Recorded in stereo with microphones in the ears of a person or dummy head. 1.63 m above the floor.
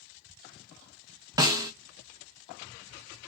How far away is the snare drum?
About 0.6 m.